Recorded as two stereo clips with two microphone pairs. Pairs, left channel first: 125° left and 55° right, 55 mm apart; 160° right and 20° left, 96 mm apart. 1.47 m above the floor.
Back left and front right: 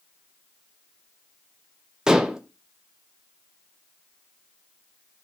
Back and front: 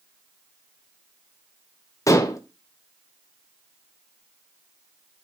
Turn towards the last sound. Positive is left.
turn(degrees=-125)